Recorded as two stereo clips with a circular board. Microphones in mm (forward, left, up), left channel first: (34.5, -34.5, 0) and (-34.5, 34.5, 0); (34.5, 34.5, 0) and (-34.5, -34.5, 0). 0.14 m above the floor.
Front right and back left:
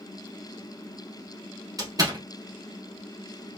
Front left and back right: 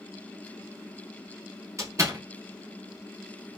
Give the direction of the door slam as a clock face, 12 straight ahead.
6 o'clock.